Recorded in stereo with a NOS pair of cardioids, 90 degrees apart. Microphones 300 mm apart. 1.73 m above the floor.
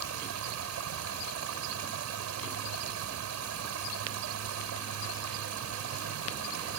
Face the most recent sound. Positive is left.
turn(degrees=-70)